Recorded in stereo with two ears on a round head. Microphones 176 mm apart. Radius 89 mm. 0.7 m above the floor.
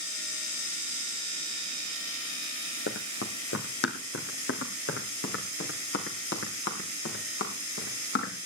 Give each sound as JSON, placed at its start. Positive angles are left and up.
{"t": 2.9, "sound": "running footsteps", "side_deg": 65, "distance_m": 1.7}